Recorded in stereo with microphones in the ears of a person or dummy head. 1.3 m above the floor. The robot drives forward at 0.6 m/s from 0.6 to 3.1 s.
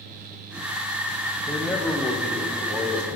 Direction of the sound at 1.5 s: 5° left (ahead or behind).